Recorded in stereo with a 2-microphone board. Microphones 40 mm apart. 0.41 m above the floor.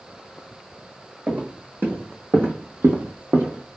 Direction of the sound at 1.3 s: 55° right (ahead or behind).